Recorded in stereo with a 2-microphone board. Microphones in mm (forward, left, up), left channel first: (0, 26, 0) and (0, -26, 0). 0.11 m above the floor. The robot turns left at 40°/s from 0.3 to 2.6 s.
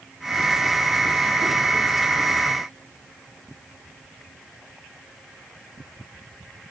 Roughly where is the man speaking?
I don't hear a man speaking.